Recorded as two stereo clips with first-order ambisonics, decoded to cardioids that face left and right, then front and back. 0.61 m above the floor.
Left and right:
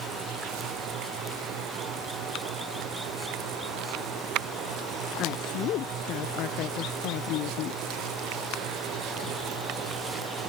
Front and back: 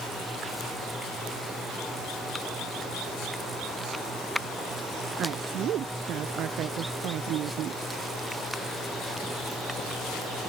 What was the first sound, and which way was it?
A woman speaking, 130° left.